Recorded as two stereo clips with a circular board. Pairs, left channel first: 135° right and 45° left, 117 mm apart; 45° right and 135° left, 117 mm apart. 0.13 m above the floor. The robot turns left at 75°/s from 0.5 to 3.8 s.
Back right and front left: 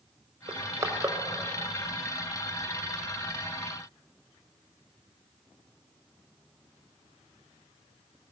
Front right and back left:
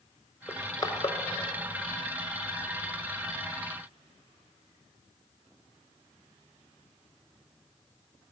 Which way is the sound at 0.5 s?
20° left.